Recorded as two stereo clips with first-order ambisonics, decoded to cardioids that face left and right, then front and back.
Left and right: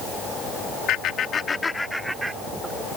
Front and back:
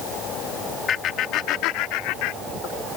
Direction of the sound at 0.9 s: 55° left.